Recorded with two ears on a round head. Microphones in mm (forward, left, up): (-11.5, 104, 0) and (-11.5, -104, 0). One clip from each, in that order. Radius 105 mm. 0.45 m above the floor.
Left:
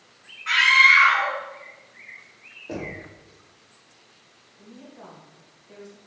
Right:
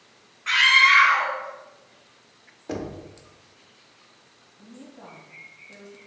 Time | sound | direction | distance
0.5 | a scream | 10° right (ahead or behind) | 0.9 m
2.7 | knocking | 45° right (ahead or behind) | 0.6 m
4.6 | a woman speaking | 40° left (ahead or behind) | 2 m